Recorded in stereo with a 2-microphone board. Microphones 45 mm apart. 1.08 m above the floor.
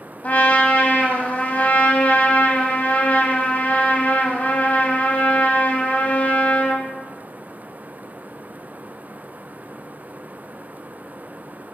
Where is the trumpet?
40° left (ahead or behind), 1.1 m.